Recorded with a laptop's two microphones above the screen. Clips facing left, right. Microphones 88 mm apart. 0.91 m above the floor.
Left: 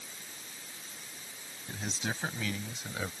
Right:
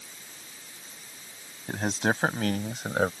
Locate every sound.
1.7 s a man speaking: 55° right (ahead or behind)